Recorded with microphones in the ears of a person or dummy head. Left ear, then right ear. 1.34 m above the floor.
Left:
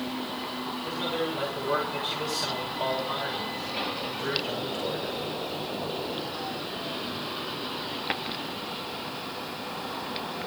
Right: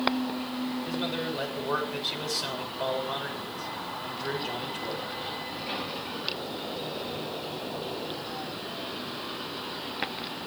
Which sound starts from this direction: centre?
A man speaking, at 0.8 s.